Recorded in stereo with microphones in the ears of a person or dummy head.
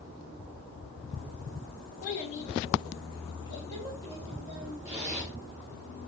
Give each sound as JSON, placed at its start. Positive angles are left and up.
{"t": 2.0, "sound": "a child speaking", "side_deg": 45, "distance_m": 0.8}
{"t": 4.8, "sound": "a zipper", "side_deg": -10, "distance_m": 2.0}